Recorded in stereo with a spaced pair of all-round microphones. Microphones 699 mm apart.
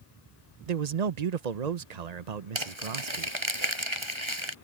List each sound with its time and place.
0.7 s a man speaking: 65° right (ahead or behind)
2.5 s crumpling: 40° right (ahead or behind)